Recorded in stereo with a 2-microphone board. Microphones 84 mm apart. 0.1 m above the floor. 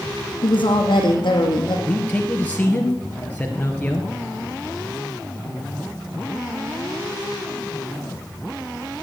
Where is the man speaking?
20° left (ahead or behind), 1.9 m.